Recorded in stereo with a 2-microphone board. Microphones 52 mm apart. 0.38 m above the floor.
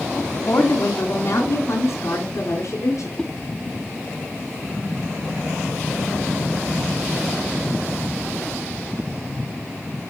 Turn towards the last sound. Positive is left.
turn(degrees=15)  # may be behind; listen again after turning